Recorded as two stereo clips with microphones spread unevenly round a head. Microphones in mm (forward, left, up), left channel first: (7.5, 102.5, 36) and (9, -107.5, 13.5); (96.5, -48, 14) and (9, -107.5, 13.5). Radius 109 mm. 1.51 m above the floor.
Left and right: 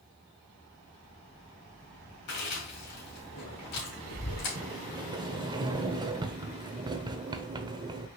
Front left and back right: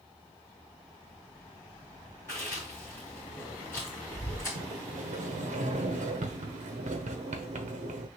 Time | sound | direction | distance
2.3 | chewing | 115° left | 2.5 m
4.5 | a sliding door | 160° right | 0.6 m